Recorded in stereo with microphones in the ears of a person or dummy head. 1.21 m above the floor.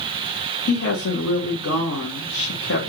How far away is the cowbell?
No cowbell in this recording.